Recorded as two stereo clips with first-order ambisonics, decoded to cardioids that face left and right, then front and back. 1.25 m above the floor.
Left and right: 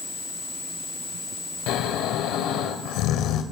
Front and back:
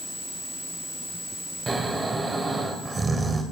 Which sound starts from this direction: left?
Snoring, at 1.7 s.